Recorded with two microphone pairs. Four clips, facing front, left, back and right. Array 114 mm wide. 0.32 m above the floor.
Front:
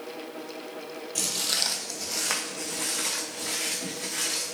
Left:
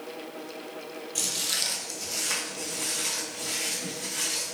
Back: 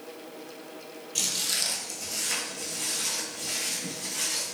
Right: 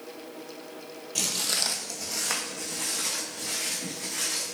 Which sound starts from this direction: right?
Footsteps, at 1.1 s.